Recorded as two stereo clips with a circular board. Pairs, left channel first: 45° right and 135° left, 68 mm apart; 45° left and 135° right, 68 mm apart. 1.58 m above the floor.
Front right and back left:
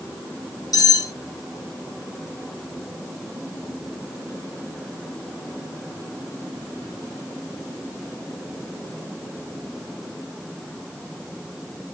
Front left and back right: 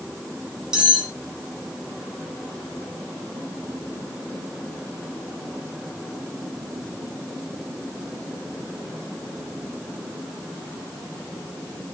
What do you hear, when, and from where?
0.7 s cutlery clinking: 55° right, 1.5 m